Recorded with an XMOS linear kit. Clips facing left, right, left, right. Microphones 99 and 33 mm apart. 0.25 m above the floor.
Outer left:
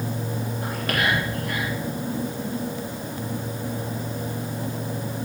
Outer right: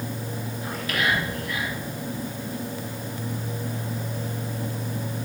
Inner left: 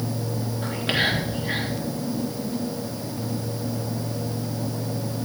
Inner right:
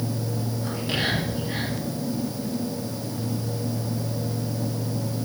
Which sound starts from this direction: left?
Whispering, at 0.6 s.